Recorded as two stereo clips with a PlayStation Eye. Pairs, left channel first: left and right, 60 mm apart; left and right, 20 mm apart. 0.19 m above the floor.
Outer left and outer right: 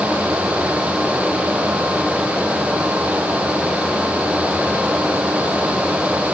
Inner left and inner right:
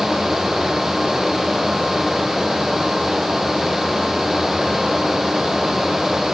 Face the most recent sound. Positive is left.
No sound to turn to.